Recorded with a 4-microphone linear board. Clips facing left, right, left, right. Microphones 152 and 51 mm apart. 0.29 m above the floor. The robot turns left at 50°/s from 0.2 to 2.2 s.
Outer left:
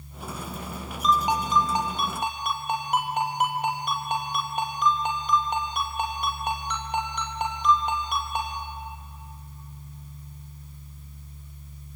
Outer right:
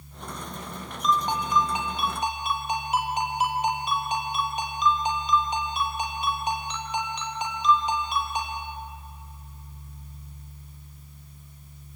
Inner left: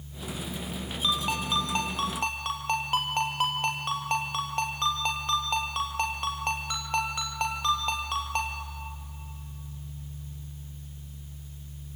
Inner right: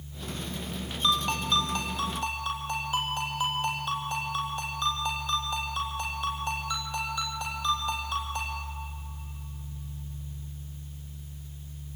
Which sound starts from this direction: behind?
A ringtone, at 1.0 s.